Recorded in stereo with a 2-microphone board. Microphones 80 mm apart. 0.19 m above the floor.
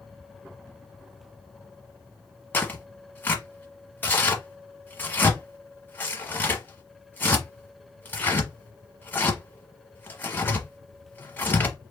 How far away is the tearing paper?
About 1.1 m.